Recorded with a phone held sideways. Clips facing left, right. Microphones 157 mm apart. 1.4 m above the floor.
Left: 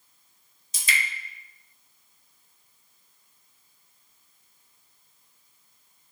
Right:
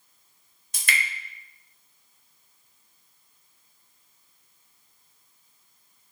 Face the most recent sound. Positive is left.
turn(degrees=-60)  # may be behind; listen again after turning